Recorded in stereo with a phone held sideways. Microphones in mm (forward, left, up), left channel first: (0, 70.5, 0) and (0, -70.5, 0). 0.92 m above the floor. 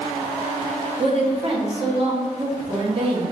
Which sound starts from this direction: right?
A woman speaking, at 1.0 s.